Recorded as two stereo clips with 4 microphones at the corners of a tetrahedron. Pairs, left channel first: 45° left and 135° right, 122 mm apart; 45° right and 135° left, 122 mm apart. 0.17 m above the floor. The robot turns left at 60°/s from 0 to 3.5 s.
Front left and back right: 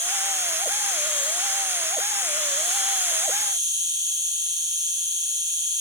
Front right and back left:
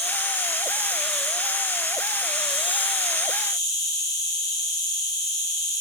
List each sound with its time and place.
0.0 s an insect: 120° left, 3 m; by 5.8 s 90° right, 3 m